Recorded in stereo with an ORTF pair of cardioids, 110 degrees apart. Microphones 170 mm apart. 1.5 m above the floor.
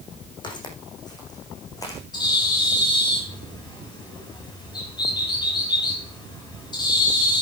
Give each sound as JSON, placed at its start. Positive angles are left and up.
{"t": 0.4, "sound": "footsteps", "azimuth_deg": 30, "distance_m": 6.0}
{"t": 2.1, "sound": "a bird", "azimuth_deg": 25, "distance_m": 7.0}